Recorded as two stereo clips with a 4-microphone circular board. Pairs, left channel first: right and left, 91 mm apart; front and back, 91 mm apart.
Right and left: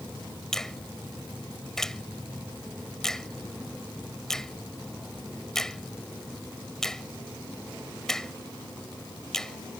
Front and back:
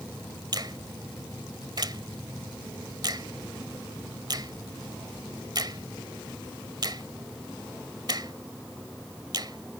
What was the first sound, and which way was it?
A finger snap, 170° right.